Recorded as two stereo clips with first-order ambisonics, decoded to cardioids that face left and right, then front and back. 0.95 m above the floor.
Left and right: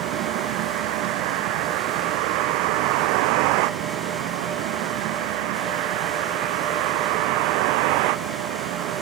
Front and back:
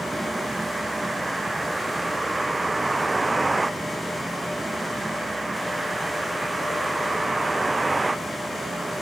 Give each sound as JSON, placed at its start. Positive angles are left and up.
{"t": 0.0, "sound": "a vehicle", "azimuth_deg": -100}